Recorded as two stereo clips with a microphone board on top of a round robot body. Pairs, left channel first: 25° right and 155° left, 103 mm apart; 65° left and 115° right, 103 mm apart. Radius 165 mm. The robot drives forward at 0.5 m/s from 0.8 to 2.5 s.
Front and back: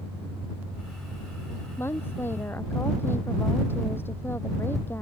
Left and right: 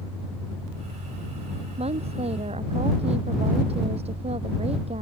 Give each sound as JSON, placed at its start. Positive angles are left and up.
{"t": 1.8, "sound": "a woman speaking", "azimuth_deg": -90}